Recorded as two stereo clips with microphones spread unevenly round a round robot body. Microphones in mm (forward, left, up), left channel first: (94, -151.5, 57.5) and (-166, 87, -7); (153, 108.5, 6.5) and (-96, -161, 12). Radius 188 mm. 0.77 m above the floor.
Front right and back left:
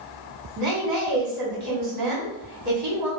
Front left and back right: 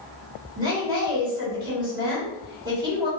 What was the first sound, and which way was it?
A woman speaking, 145° left.